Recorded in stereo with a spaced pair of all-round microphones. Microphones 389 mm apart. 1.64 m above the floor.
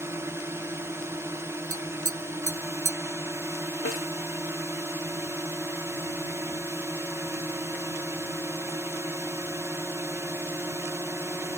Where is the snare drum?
35° left (ahead or behind).